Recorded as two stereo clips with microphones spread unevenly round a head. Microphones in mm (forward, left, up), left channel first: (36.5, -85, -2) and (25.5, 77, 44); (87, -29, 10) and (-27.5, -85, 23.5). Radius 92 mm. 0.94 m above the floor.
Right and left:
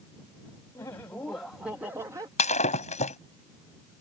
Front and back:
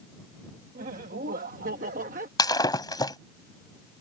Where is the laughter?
155° right; by 2.3 s 170° left.